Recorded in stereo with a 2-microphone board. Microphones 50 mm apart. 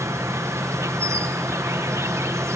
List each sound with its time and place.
0.0 s an insect: 70° right (ahead or behind)